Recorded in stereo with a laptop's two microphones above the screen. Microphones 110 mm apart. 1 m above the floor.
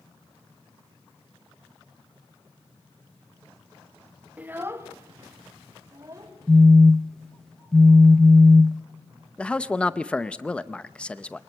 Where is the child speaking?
10° right (ahead or behind), 0.6 m; by 6.3 s 30° right (ahead or behind), 3 m.